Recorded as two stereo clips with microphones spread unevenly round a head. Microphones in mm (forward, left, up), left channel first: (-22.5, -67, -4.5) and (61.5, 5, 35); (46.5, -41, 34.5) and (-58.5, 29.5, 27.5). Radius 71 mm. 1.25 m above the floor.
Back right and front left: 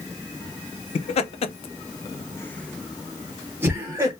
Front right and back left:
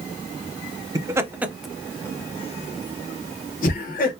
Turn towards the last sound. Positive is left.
turn(degrees=-30)